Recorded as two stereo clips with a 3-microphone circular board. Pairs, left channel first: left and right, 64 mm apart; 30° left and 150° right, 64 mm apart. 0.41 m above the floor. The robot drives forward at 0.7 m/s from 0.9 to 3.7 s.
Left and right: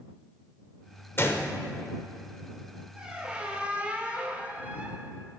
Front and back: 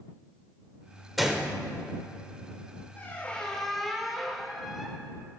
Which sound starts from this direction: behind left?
A gunshot, at 1.2 s.